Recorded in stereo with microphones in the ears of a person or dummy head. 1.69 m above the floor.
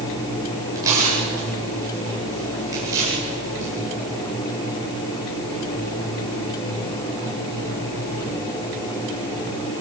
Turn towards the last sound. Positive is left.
turn(degrees=-20)  # may be behind; listen again after turning